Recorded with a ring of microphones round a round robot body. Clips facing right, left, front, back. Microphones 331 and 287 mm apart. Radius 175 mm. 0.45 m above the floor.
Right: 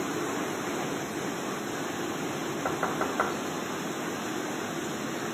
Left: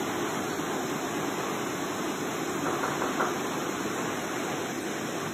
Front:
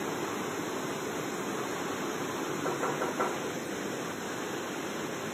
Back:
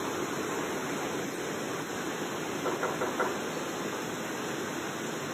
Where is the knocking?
105° right, 2.5 m.